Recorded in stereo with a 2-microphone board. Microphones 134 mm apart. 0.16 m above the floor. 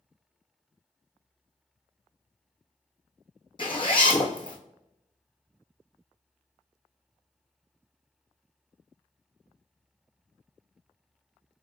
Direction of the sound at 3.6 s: 40° left (ahead or behind).